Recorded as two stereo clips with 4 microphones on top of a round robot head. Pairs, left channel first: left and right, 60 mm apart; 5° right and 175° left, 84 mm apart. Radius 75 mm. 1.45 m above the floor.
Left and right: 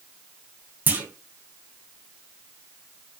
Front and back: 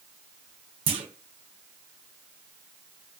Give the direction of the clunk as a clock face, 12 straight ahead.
5 o'clock.